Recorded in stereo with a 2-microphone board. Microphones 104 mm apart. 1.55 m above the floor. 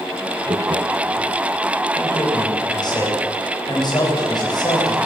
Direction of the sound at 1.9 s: 40° left (ahead or behind).